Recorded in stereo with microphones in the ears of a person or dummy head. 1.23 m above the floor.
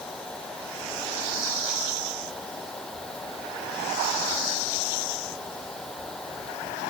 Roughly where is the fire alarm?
No fire alarm in this recording.